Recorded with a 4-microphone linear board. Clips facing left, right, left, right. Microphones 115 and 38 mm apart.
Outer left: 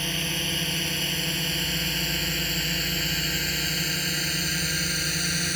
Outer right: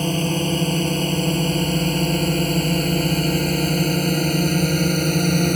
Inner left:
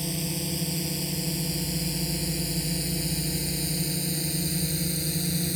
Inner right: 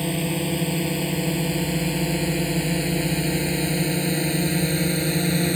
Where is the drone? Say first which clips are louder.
Outer right 11 dB, inner right 7 dB; 40° right (ahead or behind); by 5.6 s 50° right (ahead or behind).